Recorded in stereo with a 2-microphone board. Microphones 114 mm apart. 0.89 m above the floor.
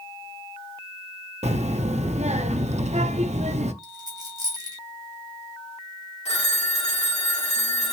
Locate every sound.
1.4 s a child speaking: 80° right, 0.5 m
3.8 s a dropped coin: 35° right (ahead or behind), 1.5 m
6.2 s a phone ringing: 70° left (ahead or behind), 1.3 m